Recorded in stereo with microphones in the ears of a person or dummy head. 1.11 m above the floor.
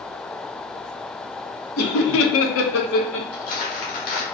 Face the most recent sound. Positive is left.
turn(degrees=55)  # may be behind; listen again after turning